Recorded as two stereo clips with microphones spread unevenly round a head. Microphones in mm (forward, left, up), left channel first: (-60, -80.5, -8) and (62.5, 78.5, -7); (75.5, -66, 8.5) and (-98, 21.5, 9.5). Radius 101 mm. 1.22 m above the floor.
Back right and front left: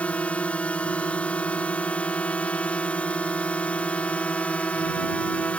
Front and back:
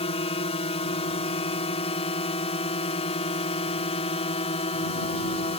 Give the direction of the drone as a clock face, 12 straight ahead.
2 o'clock.